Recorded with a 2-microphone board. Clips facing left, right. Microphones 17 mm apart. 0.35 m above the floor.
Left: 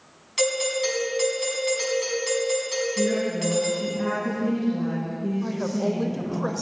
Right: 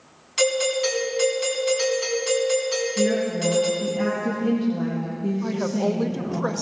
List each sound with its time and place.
0.4 s a doorbell: centre (ahead or behind), 4.5 m
3.0 s a woman speaking: 20° right (ahead or behind), 4.5 m
5.4 s a woman speaking: 15° right (ahead or behind), 1.1 m